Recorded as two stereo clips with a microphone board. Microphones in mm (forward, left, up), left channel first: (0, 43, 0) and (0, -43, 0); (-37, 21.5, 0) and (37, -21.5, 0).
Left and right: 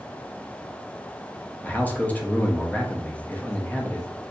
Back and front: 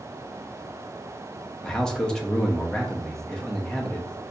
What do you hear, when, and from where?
1.6 s a man speaking: 85° left, 0.6 m